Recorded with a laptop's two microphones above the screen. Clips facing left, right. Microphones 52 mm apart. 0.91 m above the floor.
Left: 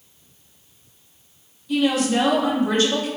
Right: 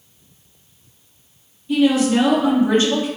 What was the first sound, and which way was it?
A woman speaking, 30° right (ahead or behind).